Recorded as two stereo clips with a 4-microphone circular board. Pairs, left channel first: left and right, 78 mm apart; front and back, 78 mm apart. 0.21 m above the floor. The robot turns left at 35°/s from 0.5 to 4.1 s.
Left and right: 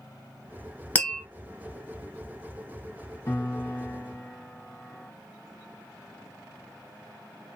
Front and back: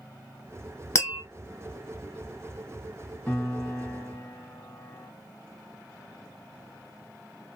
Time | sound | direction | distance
0.9 | tapping | 30° left | 0.8 m
3.3 | a piano | 75° left | 1.5 m